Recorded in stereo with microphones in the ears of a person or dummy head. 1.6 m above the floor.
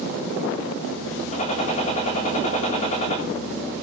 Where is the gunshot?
40° left (ahead or behind), 3.5 m.